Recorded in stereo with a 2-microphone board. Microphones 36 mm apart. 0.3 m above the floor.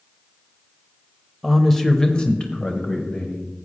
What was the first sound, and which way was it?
A man speaking, 5° right (ahead or behind).